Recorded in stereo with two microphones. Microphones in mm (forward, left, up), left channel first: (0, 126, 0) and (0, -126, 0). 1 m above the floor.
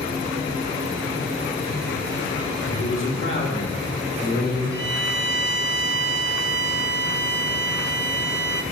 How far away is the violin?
About 0.6 m.